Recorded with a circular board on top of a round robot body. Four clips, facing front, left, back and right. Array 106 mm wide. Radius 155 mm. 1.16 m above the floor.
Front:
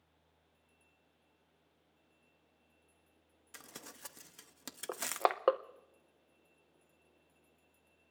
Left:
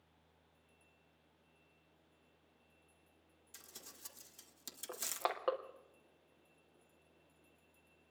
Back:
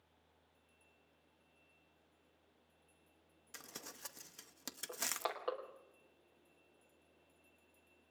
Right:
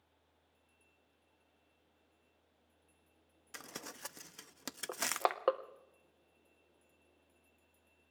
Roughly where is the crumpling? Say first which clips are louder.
Right 12 dB, front 1 dB; right.